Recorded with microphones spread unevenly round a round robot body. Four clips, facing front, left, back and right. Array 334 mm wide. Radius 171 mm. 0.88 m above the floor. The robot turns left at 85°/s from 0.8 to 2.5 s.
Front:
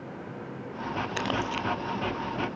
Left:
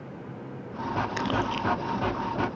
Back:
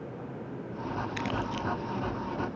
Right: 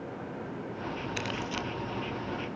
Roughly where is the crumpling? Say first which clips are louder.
Left 7 dB, front 4 dB; ahead left.